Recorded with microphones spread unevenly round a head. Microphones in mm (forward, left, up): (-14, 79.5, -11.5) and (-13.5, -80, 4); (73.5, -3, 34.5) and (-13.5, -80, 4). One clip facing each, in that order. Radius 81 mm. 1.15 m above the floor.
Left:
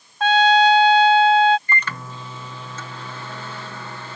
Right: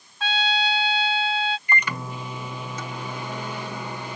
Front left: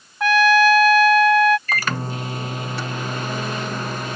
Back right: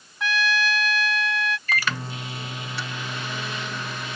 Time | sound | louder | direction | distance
0.2 | a trumpet | left 12 dB, front left 11 dB | 90° left | ?
1.7 | a microwave | even, front left 3 dB | 10° right | ?